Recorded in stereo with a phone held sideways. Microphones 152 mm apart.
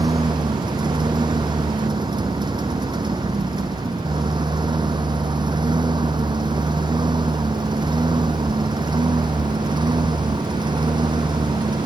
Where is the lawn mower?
30° right (ahead or behind).